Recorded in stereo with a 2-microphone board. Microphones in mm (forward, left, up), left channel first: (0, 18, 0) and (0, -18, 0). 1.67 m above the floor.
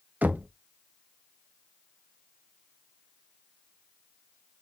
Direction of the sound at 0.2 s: 50° right (ahead or behind).